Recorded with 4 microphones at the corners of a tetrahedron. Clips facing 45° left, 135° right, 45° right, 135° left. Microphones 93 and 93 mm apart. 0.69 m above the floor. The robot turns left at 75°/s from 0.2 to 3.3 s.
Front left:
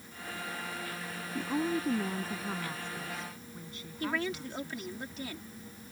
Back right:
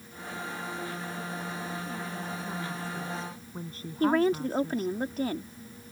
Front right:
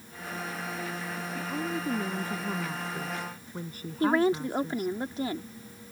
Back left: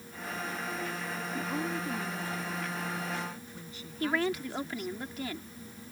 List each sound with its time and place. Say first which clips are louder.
1.4 s a woman speaking: front left 5 dB, front right 1 dB; 60° left; by 5.0 s 85° right
4.0 s a woman speaking: back right 10 dB, front right 6 dB; 100° right